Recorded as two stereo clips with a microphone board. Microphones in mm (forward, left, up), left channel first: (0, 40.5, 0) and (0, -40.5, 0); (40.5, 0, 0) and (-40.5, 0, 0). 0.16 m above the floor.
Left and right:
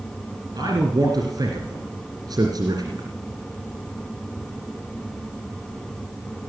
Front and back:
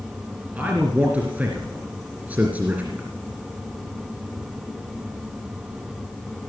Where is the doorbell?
No doorbell in this recording.